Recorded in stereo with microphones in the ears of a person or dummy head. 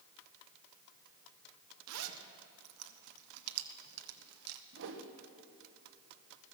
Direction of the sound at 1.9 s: 85° right.